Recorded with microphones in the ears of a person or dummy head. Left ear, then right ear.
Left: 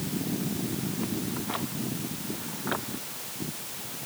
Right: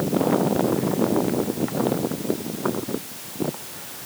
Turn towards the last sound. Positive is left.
No sound to turn to.